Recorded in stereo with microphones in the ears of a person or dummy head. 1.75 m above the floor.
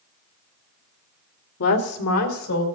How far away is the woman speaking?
About 1.9 m.